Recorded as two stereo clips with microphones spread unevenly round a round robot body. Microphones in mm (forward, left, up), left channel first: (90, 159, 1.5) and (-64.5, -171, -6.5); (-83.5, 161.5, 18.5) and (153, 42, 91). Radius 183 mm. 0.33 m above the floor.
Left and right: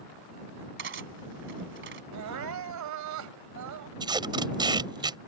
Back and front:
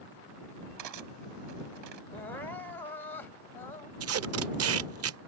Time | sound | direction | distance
0.8 | cutlery clinking | 60° right | ?
2.1 | crying | 140° right | ?
4.0 | tape being pulled | 45° right | ?